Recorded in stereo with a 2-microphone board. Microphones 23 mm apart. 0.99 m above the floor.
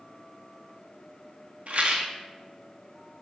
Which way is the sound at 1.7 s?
60° right (ahead or behind).